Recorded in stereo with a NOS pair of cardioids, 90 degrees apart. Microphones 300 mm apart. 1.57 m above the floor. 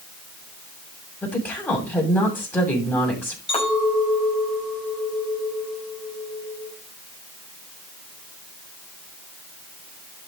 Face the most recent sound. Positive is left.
turn(degrees=20)